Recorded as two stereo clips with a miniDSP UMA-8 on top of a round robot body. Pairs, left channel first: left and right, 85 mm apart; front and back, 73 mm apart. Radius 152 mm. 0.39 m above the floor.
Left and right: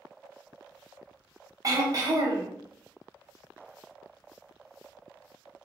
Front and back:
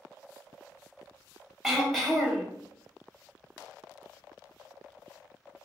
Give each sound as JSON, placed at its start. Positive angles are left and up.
{"t": 1.6, "sound": "throat clearing", "azimuth_deg": -90, "distance_m": 1.1}